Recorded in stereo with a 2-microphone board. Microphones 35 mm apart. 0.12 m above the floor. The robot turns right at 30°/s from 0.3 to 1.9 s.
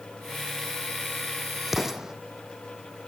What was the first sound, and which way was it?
An explosion, 10° right (ahead or behind).